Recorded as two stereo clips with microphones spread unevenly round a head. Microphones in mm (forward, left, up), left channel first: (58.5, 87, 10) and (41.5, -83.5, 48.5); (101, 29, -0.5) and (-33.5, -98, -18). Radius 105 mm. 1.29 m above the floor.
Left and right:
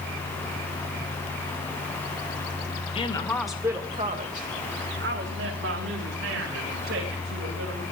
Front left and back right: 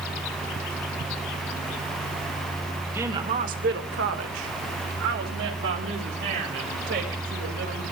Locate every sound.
3.0 s a woman speaking: 145° left, 1.7 m; by 7.8 s 120° right, 7 m